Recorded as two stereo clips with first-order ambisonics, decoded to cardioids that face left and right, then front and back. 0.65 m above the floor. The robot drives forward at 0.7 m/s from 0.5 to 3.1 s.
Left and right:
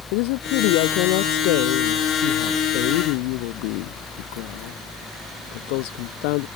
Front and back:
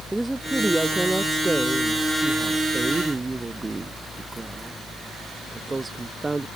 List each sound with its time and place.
0.1 s a woman speaking: 95° left; by 6.5 s 100° left